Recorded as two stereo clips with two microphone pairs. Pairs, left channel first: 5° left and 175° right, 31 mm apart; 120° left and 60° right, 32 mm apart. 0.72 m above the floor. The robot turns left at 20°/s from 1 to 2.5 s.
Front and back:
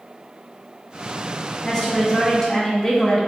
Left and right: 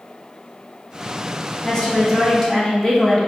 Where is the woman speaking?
65° left, 1.2 m; by 3.3 s 50° left, 1.2 m.